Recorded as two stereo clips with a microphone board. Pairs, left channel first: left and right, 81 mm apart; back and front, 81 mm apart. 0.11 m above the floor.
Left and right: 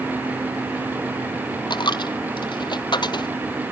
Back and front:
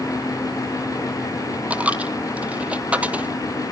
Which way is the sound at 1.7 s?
75° left.